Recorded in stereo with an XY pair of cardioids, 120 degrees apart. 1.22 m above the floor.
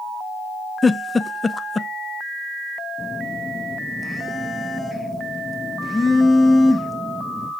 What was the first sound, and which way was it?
A giggle, 15° left.